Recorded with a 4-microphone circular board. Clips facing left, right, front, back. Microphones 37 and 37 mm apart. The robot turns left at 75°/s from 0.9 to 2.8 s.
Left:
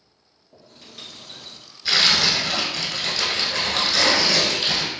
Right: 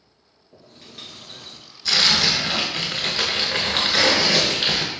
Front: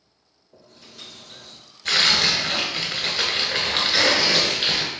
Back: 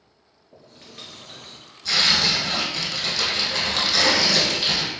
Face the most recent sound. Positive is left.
turn(degrees=-50)